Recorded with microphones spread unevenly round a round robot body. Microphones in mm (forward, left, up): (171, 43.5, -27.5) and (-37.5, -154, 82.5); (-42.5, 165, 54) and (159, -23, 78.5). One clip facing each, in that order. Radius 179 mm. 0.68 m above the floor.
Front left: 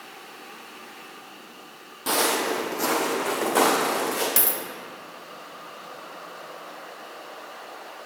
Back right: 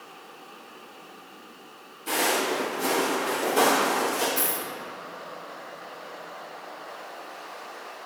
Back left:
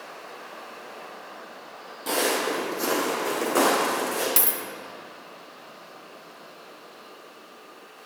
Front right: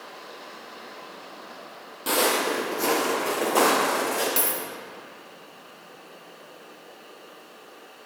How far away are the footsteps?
About 1.5 m.